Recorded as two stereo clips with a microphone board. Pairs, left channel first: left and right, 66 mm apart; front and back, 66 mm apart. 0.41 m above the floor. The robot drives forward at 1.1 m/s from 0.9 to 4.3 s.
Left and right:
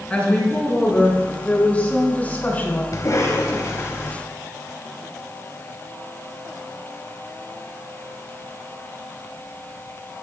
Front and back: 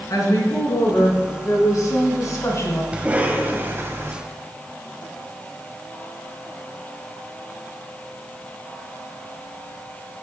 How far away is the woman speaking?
About 5.5 m.